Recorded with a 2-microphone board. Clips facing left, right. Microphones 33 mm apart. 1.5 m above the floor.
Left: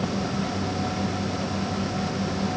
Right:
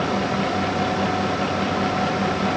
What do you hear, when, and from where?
Only background noise.